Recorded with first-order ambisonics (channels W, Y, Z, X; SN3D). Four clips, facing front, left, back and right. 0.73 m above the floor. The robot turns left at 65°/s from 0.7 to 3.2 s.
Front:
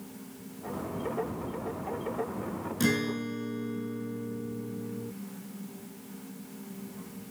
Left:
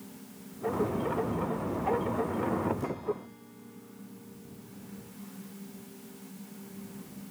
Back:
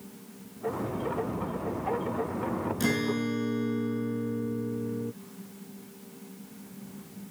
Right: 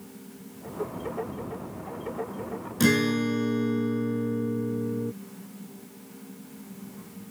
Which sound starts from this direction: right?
A guitar, at 2.8 s.